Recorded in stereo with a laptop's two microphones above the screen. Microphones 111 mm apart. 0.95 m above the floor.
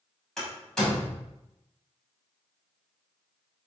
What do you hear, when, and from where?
0.4 s a door slam: 5° left (ahead or behind), 5.5 m